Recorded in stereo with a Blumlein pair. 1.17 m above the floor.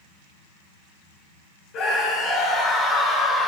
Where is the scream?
35° left, 4.5 m; by 3.5 s 10° left, 4 m.